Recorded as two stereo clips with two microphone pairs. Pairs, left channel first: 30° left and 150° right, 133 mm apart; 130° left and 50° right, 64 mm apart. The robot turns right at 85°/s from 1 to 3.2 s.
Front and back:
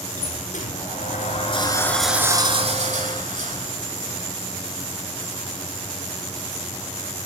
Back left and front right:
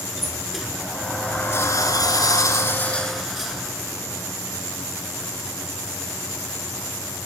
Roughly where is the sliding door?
Ahead left.